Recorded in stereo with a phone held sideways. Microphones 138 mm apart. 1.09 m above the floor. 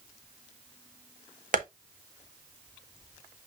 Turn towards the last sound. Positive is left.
turn(degrees=-70)  # may be behind; listen again after turning